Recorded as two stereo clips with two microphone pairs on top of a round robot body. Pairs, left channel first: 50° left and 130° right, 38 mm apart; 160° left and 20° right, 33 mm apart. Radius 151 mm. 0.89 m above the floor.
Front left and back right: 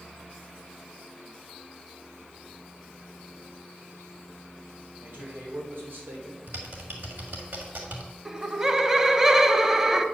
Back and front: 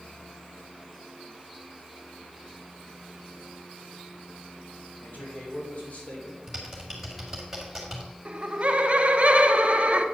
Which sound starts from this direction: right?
Typing on a keyboard, at 6.5 s.